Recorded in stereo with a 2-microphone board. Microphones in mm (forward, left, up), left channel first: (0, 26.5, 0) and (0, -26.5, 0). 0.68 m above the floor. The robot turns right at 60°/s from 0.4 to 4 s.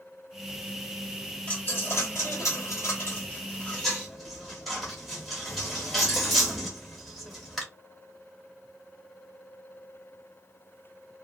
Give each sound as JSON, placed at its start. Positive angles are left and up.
{"t": 1.5, "sound": "a dropped coin", "side_deg": 25, "distance_m": 1.3}